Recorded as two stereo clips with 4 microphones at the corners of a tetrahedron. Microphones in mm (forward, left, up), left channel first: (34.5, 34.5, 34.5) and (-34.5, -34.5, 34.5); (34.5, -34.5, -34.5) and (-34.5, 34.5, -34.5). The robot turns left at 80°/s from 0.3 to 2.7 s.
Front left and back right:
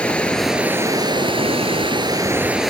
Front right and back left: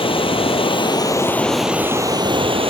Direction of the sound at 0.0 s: 35° right.